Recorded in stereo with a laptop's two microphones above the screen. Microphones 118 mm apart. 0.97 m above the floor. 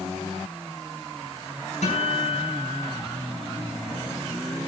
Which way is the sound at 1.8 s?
90° left.